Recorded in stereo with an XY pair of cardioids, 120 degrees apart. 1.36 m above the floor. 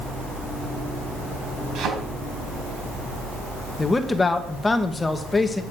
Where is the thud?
70° right, 4.5 m.